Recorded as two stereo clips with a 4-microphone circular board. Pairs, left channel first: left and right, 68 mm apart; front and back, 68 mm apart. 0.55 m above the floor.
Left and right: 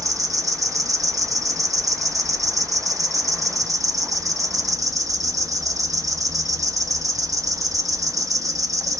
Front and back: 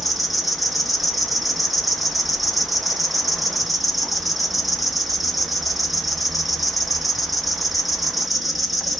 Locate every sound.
0.0 s an insect: 90° right, 0.8 m